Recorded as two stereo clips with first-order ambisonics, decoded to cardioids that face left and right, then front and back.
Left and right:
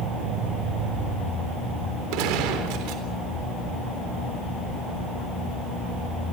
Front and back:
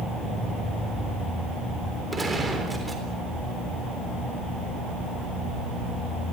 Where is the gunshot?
100° right, 3.5 m.